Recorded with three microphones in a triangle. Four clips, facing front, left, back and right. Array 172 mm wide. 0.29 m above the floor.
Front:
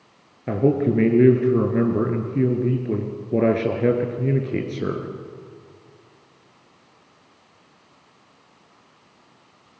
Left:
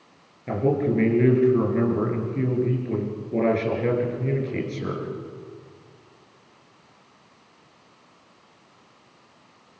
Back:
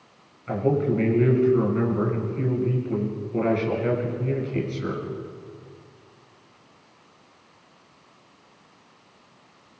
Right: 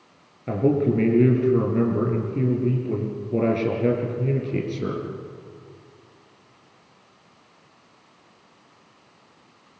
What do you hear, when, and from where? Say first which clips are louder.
0.5 s a man speaking: right 2 dB, front 3 dB; 10° right, 4.5 m